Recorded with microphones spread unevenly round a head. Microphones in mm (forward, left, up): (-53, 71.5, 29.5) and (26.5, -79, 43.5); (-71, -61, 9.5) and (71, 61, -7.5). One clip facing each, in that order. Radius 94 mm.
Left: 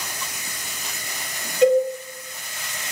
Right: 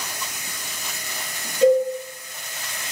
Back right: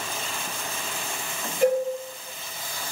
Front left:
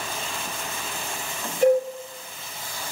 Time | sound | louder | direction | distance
1.6 | a cowbell | even, front left 3 dB | 55° right | 1.8 m